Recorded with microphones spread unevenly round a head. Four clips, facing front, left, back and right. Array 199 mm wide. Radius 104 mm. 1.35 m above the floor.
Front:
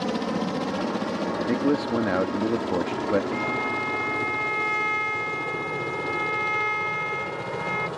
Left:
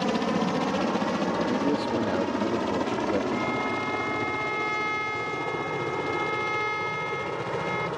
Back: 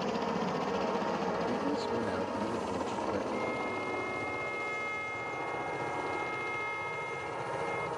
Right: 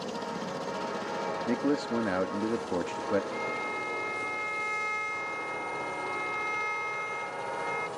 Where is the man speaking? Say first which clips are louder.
Left 3 dB, front 9 dB; 5° right.